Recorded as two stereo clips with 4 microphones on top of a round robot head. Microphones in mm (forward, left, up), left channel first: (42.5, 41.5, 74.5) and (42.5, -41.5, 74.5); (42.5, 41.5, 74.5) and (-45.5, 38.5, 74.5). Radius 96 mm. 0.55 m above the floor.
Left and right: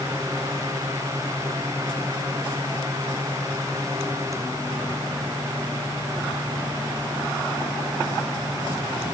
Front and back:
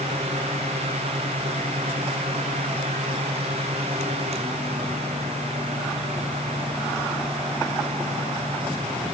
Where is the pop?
No pop in this recording.